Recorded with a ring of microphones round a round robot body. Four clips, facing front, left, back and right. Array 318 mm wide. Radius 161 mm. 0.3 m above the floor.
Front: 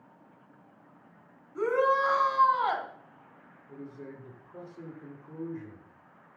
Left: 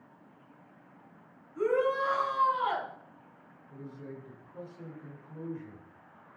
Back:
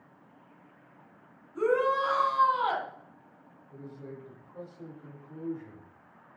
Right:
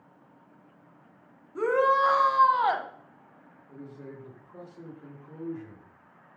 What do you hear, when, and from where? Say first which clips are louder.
1.6 s a shout: right 5 dB, even; 80° right, 2.5 m
3.7 s a man speaking: right 1 dB, front 1 dB; 35° right, 7.5 m